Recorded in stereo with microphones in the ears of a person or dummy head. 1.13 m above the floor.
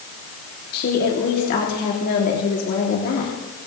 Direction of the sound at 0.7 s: 55° left (ahead or behind).